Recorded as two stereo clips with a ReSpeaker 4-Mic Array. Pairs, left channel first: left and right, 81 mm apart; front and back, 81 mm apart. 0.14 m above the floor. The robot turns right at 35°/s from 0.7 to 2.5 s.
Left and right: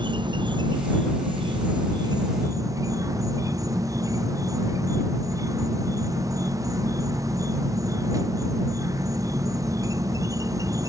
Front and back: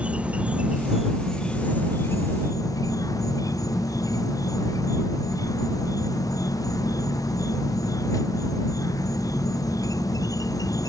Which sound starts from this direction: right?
An insect, at 0.0 s.